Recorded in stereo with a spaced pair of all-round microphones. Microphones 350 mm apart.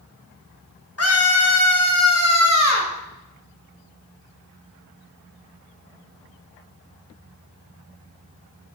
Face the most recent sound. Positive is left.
turn(degrees=50)  # may be behind; listen again after turning